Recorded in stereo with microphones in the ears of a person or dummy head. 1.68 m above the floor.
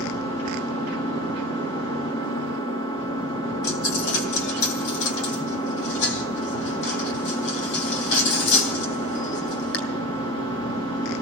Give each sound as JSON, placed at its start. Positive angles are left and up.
{"t": 0.0, "sound": "an engine running", "side_deg": 25, "distance_m": 4.0}
{"t": 3.6, "sound": "a dropped coin", "side_deg": 60, "distance_m": 2.5}